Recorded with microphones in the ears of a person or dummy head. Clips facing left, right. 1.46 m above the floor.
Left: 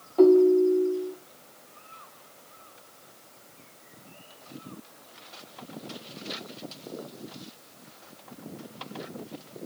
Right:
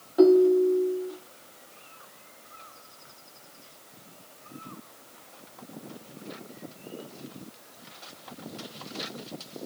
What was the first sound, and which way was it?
A ringtone, 5° right (ahead or behind).